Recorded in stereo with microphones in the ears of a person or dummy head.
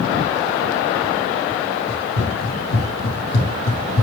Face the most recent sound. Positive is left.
turn(degrees=50)  # may be behind; listen again after turning